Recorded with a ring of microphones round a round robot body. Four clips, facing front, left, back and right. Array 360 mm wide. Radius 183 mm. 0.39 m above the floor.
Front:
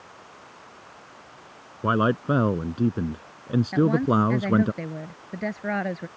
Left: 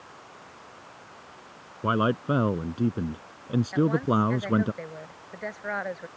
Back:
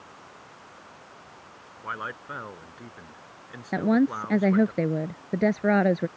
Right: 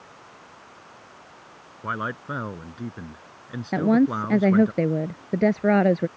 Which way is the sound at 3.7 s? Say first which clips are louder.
Right 5 dB, even; 115° right.